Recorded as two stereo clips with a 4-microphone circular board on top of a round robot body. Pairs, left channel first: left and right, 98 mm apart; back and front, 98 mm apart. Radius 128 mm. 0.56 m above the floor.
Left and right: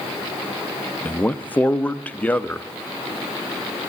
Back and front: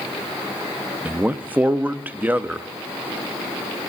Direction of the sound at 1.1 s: 45° left.